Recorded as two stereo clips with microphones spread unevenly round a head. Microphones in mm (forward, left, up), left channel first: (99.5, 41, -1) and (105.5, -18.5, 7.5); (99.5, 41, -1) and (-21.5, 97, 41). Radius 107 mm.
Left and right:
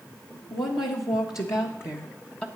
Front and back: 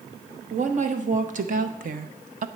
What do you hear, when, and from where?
0.5 s a woman speaking: 125° left, 1.9 m; by 2.5 s 155° left, 0.6 m